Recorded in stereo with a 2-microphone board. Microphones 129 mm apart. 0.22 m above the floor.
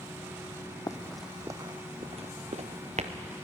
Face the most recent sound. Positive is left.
turn(degrees=-65)  # may be behind; listen again after turning